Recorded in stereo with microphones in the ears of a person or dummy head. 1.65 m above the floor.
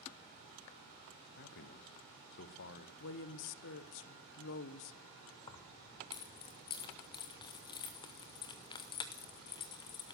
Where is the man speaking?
55° left (ahead or behind), 1.0 m.